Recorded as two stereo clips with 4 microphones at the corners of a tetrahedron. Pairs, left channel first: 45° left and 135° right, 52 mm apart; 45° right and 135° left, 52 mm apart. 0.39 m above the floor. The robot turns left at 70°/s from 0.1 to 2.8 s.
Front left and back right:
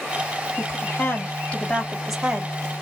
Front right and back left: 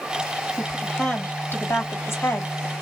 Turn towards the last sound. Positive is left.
turn(degrees=-95)